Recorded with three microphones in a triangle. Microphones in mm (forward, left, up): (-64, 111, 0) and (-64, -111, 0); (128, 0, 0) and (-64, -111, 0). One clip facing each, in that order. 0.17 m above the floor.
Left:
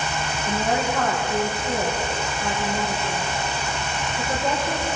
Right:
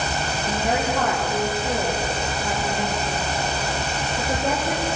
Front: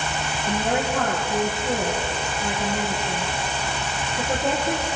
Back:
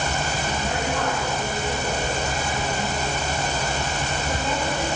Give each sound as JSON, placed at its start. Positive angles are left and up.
{"t": 0.5, "sound": "a woman speaking", "azimuth_deg": -20, "distance_m": 6.5}